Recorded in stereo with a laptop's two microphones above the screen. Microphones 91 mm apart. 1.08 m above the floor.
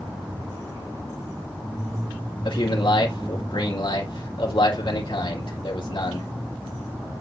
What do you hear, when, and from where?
2.5 s a man speaking: 65° left (ahead or behind), 3 m